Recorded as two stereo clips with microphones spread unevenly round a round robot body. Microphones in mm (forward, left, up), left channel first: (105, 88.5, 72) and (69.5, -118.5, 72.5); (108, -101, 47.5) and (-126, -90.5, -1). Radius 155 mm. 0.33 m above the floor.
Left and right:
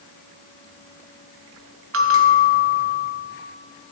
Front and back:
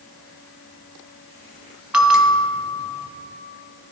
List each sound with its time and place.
1.9 s a bell: 100° right, 1.2 m